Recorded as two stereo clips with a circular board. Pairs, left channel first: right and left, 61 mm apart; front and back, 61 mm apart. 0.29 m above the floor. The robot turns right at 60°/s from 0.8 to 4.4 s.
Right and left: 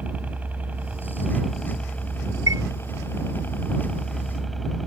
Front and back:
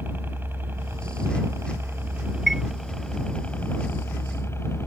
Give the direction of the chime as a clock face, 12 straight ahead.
9 o'clock.